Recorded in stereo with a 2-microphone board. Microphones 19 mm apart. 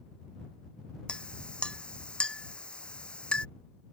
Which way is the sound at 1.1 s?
70° left (ahead or behind).